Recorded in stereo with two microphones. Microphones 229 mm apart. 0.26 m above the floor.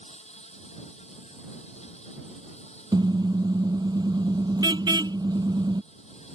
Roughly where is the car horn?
Centre.